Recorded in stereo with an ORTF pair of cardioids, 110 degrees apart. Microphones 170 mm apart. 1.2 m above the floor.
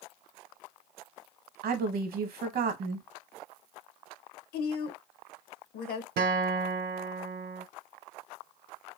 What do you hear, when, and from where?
1.6 s a woman speaking: 60° right, 0.9 m
4.5 s a woman speaking: 65° left, 0.7 m
6.2 s a guitar: 65° right, 0.6 m